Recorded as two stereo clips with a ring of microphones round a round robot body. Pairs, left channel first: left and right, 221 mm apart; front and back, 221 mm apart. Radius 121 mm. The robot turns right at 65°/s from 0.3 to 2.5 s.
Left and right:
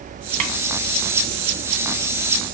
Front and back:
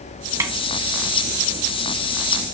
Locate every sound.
0.4 s a snare drum: 105° right, 1.6 m; by 0.5 s 95° right, 1.6 m